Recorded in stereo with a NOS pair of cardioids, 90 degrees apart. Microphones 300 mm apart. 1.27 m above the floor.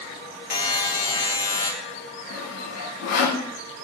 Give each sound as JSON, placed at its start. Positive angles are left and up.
{"t": 0.5, "sound": "a buzzer", "azimuth_deg": 30, "distance_m": 2.5}
{"t": 2.3, "sound": "sawing", "azimuth_deg": 65, "distance_m": 1.5}